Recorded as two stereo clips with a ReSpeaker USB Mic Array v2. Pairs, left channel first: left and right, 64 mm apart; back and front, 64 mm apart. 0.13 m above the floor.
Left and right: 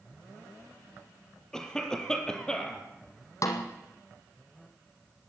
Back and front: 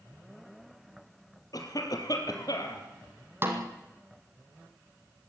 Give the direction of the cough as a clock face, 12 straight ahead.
6 o'clock.